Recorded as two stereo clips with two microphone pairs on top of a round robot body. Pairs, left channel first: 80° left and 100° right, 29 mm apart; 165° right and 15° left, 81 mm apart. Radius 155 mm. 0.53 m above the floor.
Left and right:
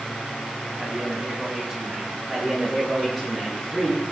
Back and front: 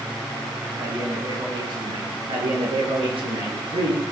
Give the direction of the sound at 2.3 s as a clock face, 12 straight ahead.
12 o'clock.